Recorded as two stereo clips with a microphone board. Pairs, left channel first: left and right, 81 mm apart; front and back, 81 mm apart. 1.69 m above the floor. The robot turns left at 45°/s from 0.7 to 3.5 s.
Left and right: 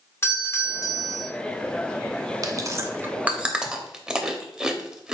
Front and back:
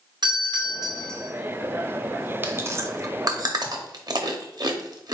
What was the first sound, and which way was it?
A doorbell, 150° left.